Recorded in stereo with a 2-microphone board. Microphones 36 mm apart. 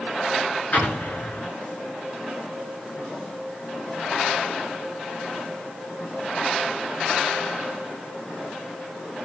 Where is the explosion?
50° left (ahead or behind), 2 m.